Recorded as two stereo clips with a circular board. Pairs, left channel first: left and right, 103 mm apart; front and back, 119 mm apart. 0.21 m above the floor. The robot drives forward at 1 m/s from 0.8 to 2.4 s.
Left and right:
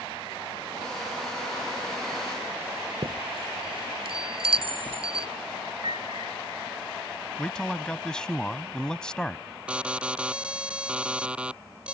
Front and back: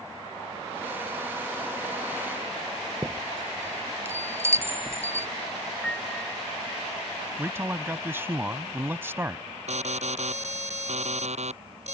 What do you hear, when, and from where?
3.0 s a chime: 110° right
5.8 s a piano: 80° right
7.4 s a man speaking: 160° left
9.7 s an alarm: 165° right